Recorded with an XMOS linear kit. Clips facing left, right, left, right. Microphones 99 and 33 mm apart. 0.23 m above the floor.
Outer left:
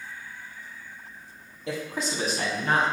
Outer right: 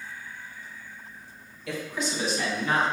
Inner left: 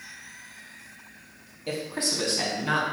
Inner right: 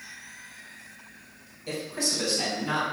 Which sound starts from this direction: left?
A man speaking, at 1.7 s.